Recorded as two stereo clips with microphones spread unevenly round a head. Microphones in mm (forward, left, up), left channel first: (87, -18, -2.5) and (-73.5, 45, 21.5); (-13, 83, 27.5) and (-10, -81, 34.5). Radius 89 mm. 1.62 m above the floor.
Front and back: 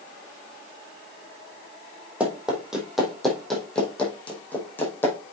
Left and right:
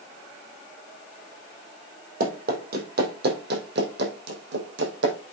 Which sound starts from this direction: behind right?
Running footsteps, at 2.2 s.